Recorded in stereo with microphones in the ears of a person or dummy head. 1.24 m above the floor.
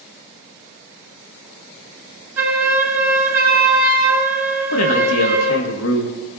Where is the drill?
I don't hear a drill.